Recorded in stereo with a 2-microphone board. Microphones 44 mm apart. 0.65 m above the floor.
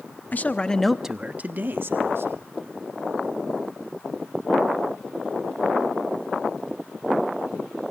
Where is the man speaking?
40° left (ahead or behind), 1.1 m; by 2.5 s 65° right (ahead or behind), 2 m.